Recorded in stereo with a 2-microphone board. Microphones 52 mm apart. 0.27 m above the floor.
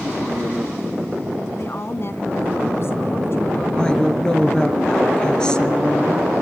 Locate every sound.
1.6 s a woman speaking: 55° left (ahead or behind), 2 m
3.8 s a woman speaking: 15° left (ahead or behind), 4.5 m